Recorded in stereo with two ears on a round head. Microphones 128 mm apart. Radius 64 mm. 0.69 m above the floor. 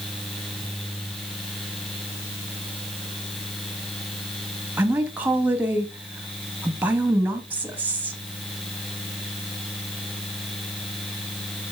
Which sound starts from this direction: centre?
A woman speaking, at 4.8 s.